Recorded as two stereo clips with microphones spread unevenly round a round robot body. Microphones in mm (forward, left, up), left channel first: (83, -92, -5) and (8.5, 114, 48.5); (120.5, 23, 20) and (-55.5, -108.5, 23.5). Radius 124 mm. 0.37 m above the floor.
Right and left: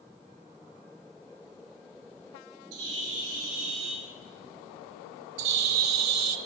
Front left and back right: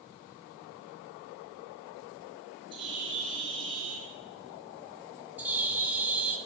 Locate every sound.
2.7 s a bird: 145° left, 5 m
5.4 s a bird: 135° left, 1.2 m